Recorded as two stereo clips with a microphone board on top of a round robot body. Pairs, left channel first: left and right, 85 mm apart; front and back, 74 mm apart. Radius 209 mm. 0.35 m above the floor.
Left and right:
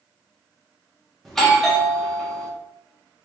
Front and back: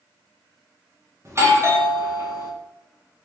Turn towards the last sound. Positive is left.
turn(degrees=175)